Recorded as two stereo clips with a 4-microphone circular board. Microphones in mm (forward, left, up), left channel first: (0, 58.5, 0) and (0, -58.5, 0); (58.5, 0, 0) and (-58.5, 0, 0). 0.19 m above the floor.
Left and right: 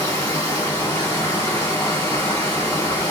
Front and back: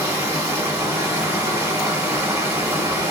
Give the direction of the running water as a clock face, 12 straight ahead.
7 o'clock.